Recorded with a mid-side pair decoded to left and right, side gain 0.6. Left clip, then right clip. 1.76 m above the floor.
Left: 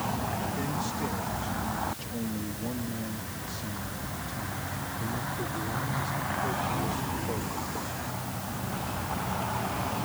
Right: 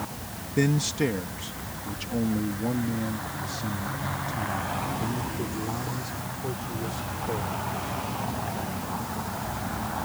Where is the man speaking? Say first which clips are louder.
Right 6 dB; 60° right; by 8.0 s 15° right.